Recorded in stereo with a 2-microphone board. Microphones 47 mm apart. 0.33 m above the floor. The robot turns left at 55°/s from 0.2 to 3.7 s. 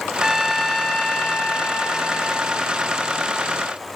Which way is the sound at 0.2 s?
5° right (ahead or behind).